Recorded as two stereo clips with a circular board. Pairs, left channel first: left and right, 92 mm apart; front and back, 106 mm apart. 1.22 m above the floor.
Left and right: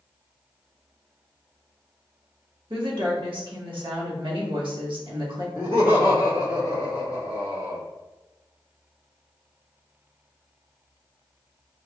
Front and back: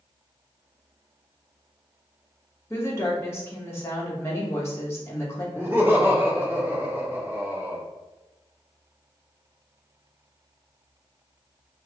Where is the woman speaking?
65° right, 0.9 m.